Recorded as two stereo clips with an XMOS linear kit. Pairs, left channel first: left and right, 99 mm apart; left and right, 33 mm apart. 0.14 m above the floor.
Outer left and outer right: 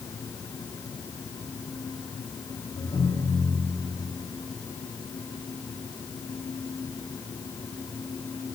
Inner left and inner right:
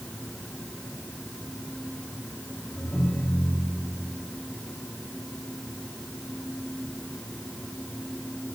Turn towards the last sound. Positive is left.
turn(degrees=80)